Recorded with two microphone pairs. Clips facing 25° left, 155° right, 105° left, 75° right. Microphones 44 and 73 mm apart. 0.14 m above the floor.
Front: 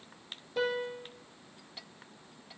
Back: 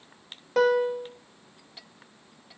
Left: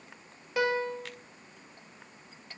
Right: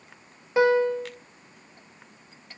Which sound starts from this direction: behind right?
A piano, at 0.6 s.